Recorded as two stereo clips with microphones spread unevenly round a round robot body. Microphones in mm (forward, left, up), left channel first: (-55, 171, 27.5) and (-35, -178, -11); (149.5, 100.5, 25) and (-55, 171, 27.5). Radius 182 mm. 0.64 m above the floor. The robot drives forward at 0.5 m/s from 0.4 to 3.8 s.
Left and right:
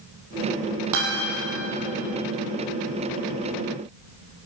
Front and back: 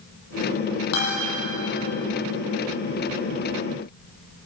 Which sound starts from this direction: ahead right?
A guitar, at 0.9 s.